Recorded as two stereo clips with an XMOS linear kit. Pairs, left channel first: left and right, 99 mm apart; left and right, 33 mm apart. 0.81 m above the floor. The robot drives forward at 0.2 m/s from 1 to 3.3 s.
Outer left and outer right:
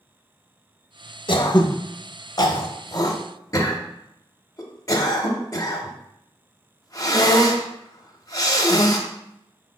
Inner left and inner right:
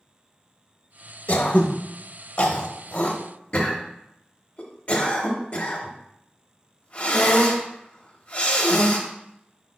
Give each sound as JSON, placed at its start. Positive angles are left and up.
{"t": 1.3, "sound": "throat clearing", "side_deg": 50, "distance_m": 0.6}